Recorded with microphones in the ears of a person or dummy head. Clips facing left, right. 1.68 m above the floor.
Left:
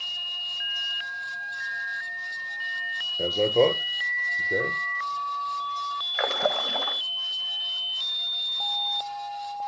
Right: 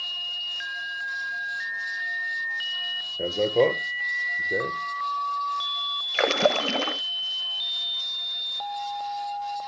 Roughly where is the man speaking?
Centre.